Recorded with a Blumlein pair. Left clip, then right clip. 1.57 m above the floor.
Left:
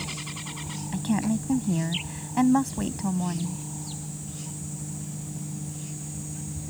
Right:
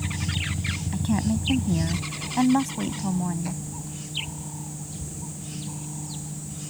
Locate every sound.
0.9 s a woman speaking: 5° left